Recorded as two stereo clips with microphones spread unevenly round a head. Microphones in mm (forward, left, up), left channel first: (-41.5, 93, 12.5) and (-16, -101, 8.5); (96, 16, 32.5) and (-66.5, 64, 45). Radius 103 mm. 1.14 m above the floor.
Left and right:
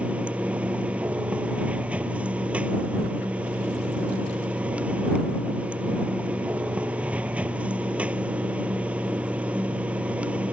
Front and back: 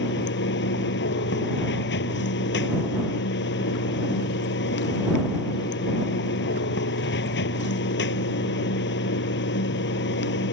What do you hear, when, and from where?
0.0 s running water: straight ahead